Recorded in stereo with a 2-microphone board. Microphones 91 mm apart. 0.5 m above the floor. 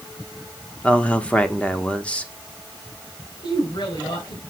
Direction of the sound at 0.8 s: 15° left (ahead or behind).